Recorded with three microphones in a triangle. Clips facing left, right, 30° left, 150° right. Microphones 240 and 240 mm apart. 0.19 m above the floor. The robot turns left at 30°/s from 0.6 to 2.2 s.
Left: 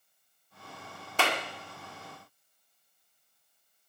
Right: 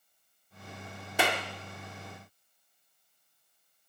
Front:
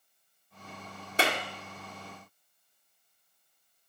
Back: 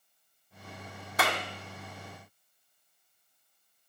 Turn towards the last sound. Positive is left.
turn(degrees=-50)